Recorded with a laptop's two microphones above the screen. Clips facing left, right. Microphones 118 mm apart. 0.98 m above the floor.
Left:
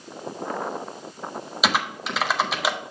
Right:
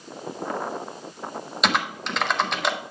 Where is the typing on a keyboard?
5° left (ahead or behind), 0.6 m.